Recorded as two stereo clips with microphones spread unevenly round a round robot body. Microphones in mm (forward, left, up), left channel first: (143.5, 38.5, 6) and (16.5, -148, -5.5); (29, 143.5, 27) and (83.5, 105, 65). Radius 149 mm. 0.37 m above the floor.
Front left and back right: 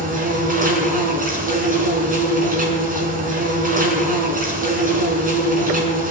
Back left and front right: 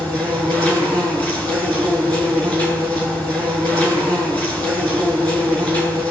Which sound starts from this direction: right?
An insect, at 0.0 s.